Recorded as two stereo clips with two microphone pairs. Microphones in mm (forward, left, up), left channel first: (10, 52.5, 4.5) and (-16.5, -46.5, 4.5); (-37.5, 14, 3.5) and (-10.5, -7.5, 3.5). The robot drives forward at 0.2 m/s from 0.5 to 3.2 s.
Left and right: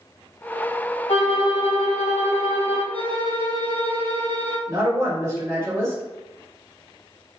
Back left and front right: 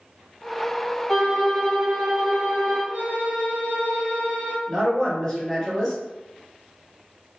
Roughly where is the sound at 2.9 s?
Right.